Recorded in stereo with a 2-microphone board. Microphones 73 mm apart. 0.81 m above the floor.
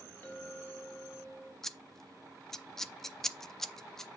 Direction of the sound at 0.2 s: 30° left (ahead or behind).